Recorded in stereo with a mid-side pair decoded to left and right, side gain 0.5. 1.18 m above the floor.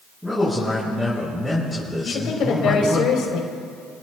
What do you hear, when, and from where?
0.2 s a man speaking: straight ahead, 7.5 m
2.0 s a woman speaking: 65° left, 4 m